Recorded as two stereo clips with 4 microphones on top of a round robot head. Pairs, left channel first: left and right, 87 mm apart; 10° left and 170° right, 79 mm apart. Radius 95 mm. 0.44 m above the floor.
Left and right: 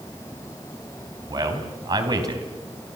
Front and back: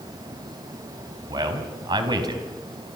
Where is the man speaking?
135° right, 3.5 m.